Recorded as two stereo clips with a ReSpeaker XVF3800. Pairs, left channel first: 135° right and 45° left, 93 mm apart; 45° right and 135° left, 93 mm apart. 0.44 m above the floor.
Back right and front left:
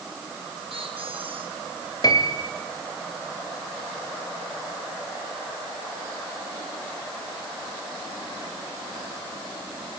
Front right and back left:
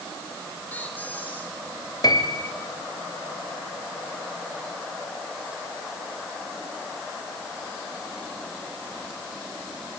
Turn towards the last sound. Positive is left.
turn(degrees=-90)